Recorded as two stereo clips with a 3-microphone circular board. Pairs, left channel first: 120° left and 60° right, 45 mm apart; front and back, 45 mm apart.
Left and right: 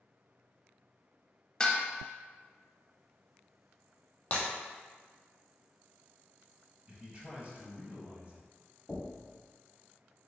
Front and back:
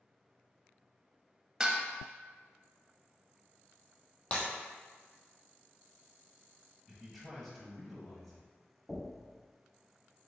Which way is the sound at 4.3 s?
65° left.